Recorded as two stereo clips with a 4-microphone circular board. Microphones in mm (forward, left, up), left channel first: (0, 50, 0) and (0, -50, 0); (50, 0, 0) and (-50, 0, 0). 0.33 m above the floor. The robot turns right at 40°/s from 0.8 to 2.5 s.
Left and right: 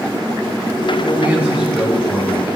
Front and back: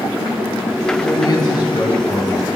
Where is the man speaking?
25° right, 2 m; by 2.5 s 30° left, 2 m.